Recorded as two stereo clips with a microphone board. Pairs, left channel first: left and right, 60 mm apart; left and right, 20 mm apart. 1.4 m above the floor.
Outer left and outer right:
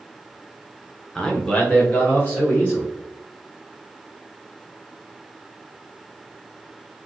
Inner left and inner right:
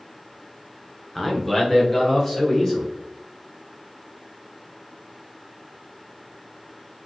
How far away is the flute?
No flute in this recording.